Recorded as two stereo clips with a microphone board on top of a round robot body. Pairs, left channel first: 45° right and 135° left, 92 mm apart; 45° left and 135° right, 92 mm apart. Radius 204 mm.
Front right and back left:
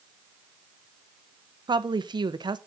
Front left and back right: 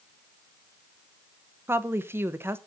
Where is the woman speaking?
165° left, 1.2 m.